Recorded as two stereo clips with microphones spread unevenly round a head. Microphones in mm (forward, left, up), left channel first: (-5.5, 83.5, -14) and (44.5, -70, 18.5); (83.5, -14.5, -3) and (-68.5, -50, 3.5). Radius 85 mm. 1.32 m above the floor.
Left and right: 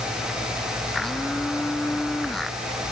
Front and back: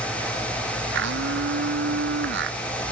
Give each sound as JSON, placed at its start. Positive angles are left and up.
{"t": 0.9, "sound": "a blender", "azimuth_deg": -160}